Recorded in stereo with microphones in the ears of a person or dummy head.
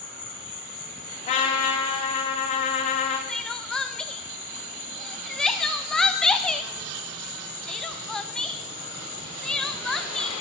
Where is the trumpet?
35° left (ahead or behind), 1.5 m.